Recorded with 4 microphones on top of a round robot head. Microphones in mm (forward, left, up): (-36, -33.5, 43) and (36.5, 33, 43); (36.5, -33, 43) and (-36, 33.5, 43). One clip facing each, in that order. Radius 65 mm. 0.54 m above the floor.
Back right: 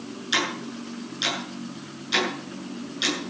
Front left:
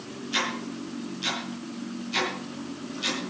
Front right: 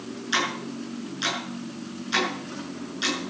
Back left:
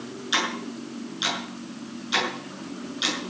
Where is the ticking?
145° right, 7.5 m.